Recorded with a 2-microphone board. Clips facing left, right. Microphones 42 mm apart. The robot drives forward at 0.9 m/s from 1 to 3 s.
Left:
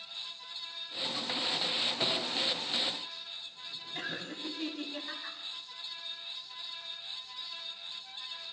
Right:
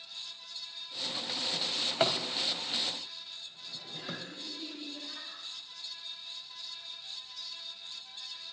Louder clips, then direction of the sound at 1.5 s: Right 6 dB; 50° right (ahead or behind).